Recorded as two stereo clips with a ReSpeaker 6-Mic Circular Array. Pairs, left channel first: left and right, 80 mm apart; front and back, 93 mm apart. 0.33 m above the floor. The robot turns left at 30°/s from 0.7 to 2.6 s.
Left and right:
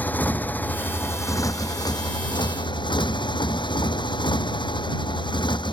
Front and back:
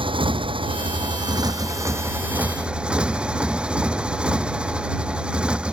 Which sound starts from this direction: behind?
A motorcycle, at 0.0 s.